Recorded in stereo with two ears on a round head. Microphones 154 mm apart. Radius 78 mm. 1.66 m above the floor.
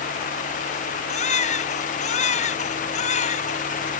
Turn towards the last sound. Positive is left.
turn(degrees=40)  # may be behind; listen again after turning